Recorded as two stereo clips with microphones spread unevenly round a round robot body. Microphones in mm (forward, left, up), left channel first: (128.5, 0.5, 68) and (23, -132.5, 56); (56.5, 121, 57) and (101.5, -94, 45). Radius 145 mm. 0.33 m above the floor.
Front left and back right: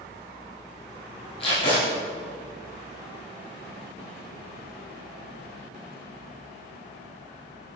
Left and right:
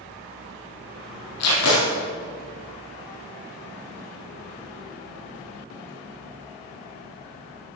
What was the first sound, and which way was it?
Tape being pulled, 120° left.